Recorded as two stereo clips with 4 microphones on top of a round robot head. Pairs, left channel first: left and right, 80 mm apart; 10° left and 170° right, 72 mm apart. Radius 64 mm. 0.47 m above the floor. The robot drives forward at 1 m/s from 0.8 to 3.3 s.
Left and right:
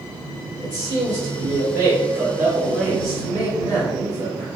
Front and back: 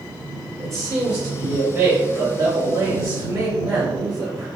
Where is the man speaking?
85° right, 1.7 m; by 4.5 s 155° right, 3 m.